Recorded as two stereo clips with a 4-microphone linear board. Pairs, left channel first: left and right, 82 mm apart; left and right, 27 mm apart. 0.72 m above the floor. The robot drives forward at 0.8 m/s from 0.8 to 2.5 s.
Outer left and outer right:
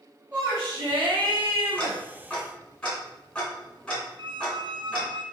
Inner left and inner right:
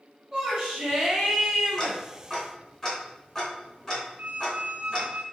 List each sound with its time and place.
0.3 s a shout: 25° right (ahead or behind), 3.5 m; by 2.0 s 20° right (ahead or behind), 4 m
1.8 s ticking: 15° left (ahead or behind), 3 m; by 5.1 s 10° left (ahead or behind), 3.5 m
4.2 s a squeak: 70° right (ahead or behind), 0.8 m